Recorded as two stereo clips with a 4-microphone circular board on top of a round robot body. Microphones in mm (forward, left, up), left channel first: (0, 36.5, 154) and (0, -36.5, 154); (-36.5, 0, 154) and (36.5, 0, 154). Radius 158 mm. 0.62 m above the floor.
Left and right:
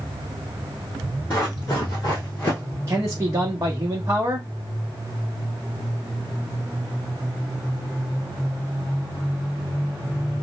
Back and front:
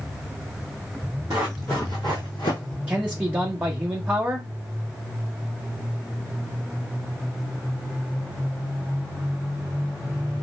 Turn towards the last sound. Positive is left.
turn(degrees=-65)